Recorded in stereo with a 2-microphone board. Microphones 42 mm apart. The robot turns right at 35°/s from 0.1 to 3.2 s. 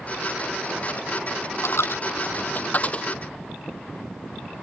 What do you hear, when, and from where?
1.6 s a dropped coin: 80° left; by 3.1 s 30° left (ahead or behind)